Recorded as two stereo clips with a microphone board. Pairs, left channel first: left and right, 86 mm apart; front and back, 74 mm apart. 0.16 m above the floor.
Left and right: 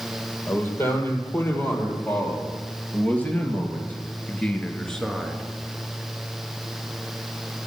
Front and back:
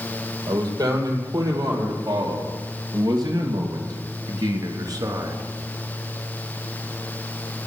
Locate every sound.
0.5 s a man speaking: 150° left, 4 m; by 5.4 s straight behind, 1.8 m